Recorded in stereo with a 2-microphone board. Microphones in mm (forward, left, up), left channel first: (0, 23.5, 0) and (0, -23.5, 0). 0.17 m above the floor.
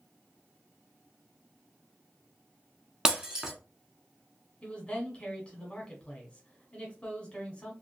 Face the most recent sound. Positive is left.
turn(degrees=25)  # may be behind; listen again after turning